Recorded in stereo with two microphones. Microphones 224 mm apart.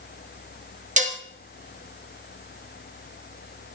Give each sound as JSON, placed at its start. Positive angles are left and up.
{"t": 1.0, "sound": "dishes clattering", "side_deg": -35, "distance_m": 1.1}